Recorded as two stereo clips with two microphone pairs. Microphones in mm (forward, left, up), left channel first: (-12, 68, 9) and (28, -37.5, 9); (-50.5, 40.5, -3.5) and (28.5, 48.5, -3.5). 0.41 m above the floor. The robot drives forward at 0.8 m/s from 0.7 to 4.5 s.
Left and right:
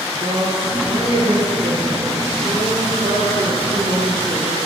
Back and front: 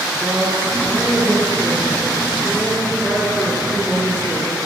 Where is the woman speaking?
60° right, 6.5 m; by 4.6 s 90° right, 5.5 m.